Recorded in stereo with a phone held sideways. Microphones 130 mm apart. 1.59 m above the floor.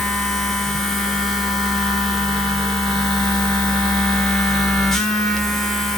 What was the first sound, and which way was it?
A machine running, centre (ahead or behind).